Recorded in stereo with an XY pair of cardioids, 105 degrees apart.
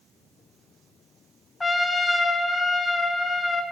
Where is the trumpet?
15° left, 0.7 m.